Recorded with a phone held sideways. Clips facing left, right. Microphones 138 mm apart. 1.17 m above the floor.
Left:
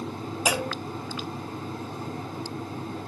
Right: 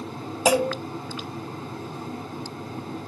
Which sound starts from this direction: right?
A clunk, at 0.5 s.